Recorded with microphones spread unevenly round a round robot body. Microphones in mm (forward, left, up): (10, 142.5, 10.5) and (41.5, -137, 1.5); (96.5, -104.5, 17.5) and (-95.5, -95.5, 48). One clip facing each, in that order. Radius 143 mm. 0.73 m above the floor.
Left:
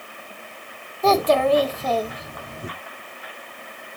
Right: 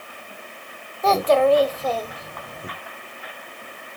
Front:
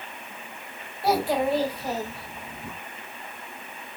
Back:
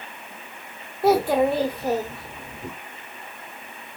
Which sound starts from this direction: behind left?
A child speaking, at 1.0 s.